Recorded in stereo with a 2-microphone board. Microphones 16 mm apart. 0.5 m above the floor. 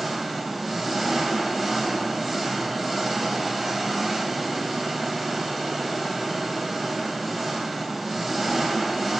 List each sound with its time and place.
0.0 s an engine running: centre (ahead or behind), 3 m